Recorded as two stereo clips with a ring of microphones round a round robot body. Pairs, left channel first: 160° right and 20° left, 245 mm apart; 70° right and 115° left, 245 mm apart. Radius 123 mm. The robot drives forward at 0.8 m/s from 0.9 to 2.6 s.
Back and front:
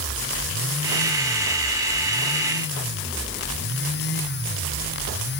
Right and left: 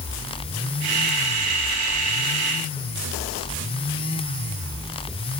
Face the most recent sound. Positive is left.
No sound to turn to.